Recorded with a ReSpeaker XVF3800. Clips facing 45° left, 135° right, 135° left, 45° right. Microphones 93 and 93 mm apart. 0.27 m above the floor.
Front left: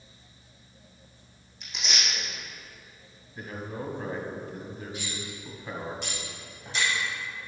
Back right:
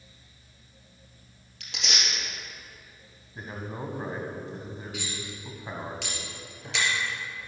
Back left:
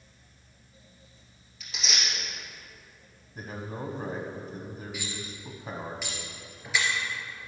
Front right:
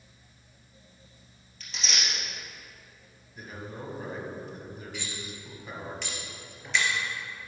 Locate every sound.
1.6 s tearing paper: 140° right, 3.5 m
3.4 s a man speaking: 165° left, 1.5 m
4.9 s cutlery clinking: 145° right, 2.5 m